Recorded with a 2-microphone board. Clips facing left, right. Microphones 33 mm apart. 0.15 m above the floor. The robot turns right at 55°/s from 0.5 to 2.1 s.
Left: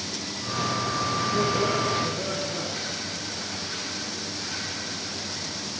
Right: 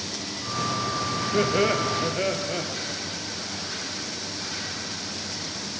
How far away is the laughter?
About 2.5 m.